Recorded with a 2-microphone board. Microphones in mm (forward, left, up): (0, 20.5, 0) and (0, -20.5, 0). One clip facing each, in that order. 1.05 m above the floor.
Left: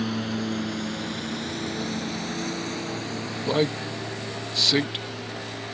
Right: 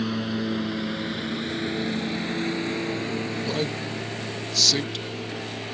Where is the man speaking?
30° left (ahead or behind).